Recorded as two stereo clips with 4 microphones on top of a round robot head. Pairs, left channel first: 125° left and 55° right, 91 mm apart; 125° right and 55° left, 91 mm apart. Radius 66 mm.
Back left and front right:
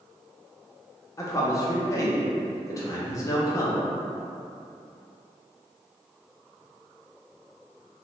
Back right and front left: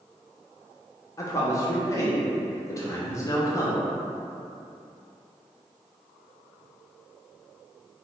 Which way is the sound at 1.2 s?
Straight behind.